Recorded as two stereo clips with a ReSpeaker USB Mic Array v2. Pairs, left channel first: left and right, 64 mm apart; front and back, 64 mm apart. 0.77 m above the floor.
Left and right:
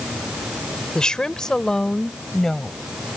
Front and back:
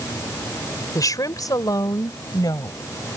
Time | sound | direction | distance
0.9 | a woman speaking | 10° left | ?